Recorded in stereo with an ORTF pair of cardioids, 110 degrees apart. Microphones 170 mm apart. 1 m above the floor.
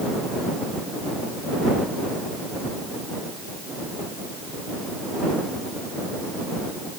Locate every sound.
Only background noise.